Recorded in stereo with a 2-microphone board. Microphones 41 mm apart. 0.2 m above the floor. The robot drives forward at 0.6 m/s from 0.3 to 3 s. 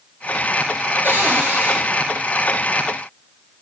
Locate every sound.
1.0 s a cupboard door: 60° right (ahead or behind), 4 m; by 1.8 s 55° right (ahead or behind), 4 m